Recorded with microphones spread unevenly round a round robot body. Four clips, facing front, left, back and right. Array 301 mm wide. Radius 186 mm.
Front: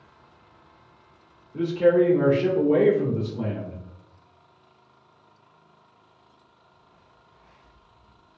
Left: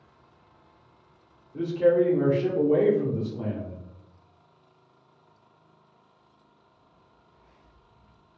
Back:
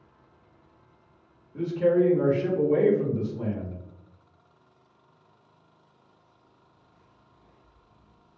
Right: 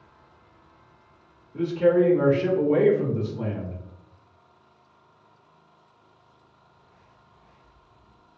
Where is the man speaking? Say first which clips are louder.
Right 1 dB, front 3 dB; 5° right, 1.5 m.